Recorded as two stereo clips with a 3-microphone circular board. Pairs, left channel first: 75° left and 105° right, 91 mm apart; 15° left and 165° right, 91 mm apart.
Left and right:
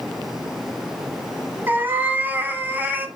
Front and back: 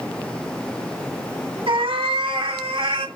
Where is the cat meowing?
175° right, 1.2 m.